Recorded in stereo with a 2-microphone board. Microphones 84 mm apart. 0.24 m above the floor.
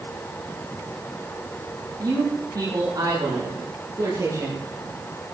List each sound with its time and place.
2.0 s a man speaking: 50° right (ahead or behind), 6.5 m; by 4.6 s 40° right (ahead or behind), 5.5 m